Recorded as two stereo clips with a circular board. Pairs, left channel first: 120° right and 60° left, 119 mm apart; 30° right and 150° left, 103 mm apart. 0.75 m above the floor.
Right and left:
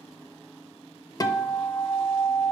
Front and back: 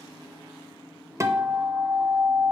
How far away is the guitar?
About 0.5 m.